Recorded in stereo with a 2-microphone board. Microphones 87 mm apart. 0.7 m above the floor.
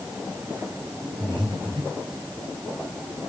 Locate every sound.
1.2 s breathing: 80° right, 3 m